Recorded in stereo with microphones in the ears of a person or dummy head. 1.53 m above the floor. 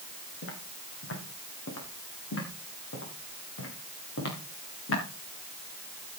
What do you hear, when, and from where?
0.4 s footsteps: 75° left (ahead or behind), 5 m; by 5.0 s 70° left (ahead or behind), 7.5 m